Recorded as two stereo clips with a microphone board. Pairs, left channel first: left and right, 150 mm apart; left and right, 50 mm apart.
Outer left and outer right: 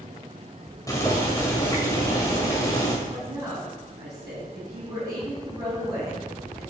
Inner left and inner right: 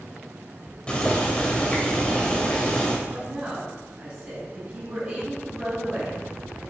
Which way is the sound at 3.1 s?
15° right (ahead or behind).